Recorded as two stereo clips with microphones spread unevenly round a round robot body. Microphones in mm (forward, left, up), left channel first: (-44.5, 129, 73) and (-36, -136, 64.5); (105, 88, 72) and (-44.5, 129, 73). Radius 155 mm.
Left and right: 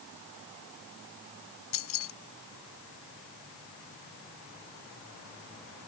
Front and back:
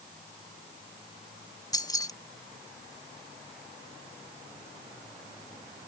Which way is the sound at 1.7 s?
50° left.